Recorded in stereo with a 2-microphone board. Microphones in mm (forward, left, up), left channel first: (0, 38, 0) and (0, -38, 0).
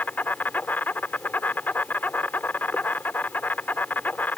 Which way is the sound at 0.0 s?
25° left (ahead or behind).